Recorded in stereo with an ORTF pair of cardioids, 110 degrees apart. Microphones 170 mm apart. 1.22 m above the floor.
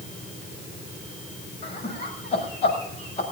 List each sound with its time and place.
1.6 s laughter: 40° left, 6.5 m